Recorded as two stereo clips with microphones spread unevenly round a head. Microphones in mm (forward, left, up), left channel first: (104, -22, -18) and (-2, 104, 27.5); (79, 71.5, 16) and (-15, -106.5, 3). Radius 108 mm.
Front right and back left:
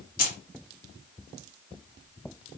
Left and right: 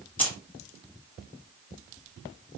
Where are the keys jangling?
15° right, 1.3 m.